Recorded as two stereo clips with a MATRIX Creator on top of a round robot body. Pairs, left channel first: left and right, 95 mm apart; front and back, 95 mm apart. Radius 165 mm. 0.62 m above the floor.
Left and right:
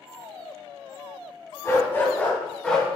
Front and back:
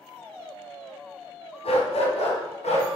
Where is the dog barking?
25° left, 2 m; by 2.9 s 5° left, 2.5 m.